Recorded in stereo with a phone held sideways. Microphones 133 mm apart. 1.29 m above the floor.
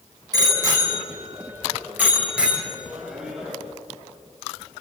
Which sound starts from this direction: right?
A bicycle bell, at 0.3 s.